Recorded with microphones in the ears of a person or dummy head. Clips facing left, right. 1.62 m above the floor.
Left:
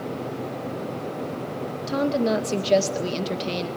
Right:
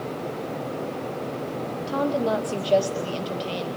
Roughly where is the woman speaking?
Left.